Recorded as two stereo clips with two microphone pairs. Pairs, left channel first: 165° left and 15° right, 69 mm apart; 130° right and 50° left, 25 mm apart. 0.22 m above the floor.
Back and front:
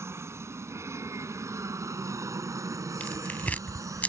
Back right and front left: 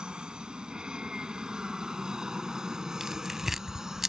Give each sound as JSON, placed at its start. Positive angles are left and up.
{"t": 0.0, "sound": "an aircraft", "azimuth_deg": 15}
{"t": 3.0, "sound": "tearing paper", "azimuth_deg": 120}